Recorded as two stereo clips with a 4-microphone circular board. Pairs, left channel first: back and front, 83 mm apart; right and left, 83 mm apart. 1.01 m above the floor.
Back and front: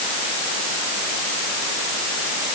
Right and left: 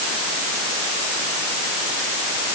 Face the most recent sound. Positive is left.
No sound to turn to.